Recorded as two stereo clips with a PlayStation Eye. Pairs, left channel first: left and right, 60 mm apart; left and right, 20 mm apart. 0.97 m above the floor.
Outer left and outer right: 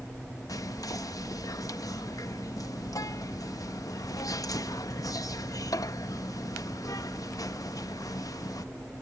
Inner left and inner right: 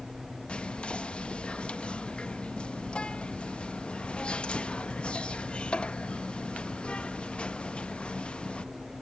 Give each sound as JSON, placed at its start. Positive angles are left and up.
{"t": 0.5, "sound": "whispering", "side_deg": 80}